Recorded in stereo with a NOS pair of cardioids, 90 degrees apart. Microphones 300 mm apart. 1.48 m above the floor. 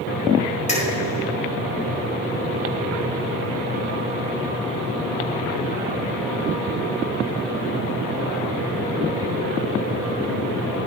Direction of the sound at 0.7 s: 25° left.